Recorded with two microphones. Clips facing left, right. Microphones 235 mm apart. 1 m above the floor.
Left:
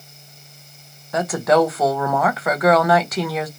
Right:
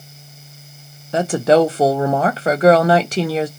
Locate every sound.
1.1 s a woman speaking: 30° right (ahead or behind), 0.5 m